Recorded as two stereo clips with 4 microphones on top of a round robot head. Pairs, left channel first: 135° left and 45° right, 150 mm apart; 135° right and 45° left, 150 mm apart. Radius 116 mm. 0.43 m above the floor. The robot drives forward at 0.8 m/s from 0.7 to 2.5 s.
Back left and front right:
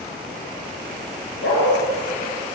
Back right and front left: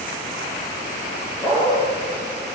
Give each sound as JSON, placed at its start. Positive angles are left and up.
{"t": 1.4, "sound": "a dog barking", "azimuth_deg": 150, "distance_m": 5.5}